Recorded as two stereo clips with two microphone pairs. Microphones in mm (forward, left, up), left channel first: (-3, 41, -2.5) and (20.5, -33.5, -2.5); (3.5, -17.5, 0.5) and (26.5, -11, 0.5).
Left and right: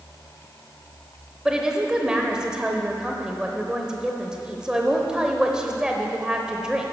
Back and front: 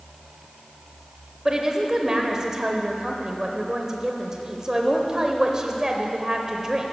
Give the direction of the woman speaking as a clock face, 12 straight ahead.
12 o'clock.